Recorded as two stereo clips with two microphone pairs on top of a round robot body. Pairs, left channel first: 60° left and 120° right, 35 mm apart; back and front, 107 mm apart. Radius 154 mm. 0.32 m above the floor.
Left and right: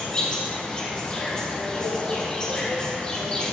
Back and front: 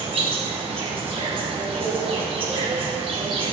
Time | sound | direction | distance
0.0 | an insect | 5° right | 4 m